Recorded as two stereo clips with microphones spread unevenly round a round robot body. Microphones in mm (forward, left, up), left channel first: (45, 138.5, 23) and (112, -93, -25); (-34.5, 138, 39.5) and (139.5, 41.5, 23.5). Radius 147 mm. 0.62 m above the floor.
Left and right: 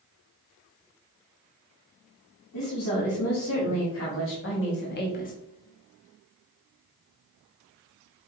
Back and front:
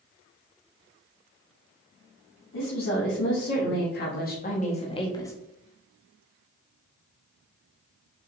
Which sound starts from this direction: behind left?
A woman speaking, at 2.5 s.